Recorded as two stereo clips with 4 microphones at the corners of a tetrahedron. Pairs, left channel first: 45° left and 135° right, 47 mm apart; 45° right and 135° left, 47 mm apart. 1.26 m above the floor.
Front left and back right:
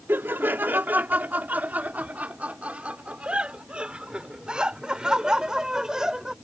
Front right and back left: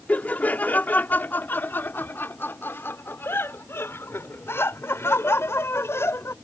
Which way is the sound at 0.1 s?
100° right.